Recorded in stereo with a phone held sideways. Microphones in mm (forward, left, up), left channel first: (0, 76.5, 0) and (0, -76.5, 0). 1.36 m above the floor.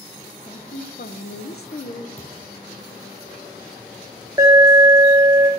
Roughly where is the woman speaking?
Left.